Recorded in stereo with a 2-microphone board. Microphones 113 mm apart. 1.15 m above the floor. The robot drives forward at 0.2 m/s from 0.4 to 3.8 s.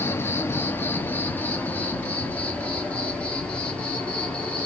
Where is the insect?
20° left (ahead or behind), 0.7 m; by 4.7 s 10° left (ahead or behind), 1.3 m.